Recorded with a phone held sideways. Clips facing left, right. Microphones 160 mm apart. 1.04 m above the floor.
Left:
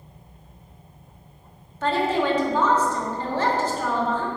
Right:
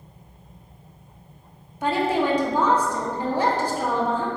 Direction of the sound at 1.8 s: 15° right (ahead or behind).